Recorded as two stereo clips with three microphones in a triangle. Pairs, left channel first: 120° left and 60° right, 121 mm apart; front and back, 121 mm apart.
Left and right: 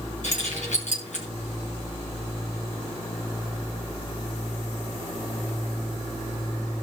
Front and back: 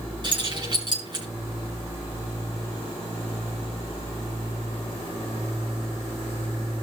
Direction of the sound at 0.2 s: 130° left.